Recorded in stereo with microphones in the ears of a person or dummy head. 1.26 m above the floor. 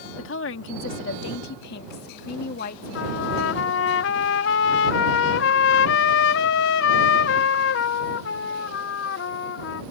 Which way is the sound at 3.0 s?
75° left (ahead or behind).